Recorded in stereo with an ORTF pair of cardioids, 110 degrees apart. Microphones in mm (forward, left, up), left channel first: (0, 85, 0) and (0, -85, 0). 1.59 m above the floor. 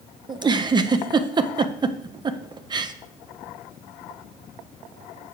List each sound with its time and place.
0.3 s a giggle: 25° right, 0.7 m